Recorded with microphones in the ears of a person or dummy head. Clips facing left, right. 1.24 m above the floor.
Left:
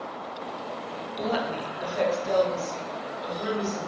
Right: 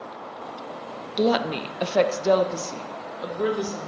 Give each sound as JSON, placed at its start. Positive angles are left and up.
{"t": 1.2, "sound": "a woman speaking", "side_deg": -50, "distance_m": 0.7}